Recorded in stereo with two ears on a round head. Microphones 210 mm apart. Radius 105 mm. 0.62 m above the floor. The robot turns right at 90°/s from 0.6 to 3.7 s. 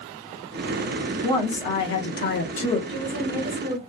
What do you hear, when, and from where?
1.2 s a woman speaking: 15° left, 0.8 m; by 2.8 s 155° left, 0.8 m
2.9 s a woman speaking: 150° left, 1.8 m; by 3.8 s 135° right, 1.8 m